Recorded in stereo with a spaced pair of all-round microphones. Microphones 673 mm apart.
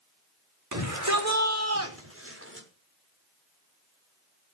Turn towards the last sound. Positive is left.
turn(degrees=-15)  # may be behind; listen again after turning